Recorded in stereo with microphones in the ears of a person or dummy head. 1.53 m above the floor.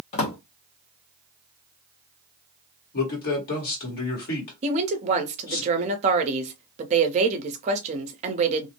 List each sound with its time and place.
0.1 s a drawer: 35° left (ahead or behind), 0.8 m
2.9 s a man speaking: 60° left (ahead or behind), 1.5 m
4.6 s a woman speaking: 35° right (ahead or behind), 0.7 m